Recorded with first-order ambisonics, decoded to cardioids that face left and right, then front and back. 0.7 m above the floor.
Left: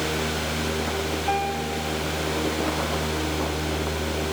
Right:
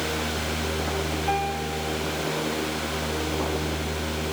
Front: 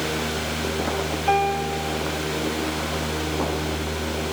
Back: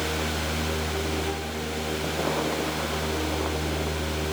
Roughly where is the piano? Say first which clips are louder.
Left 1 dB, front 10 dB; ahead.